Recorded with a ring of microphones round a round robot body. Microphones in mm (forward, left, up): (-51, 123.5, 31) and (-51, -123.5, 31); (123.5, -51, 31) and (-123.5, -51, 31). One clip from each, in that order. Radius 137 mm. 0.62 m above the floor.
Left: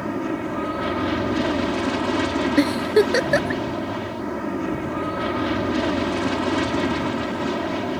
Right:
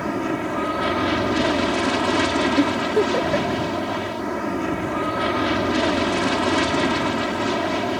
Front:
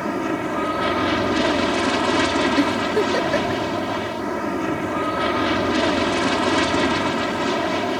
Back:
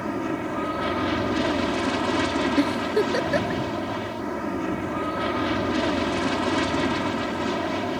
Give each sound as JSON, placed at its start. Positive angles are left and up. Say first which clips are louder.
{"t": 0.0, "sound": "an aircraft", "louder": "right 2 dB, front 4 dB", "azimuth_deg": -40}
{"t": 2.6, "sound": "a giggle", "louder": "left 1 dB, front 3 dB", "azimuth_deg": 95}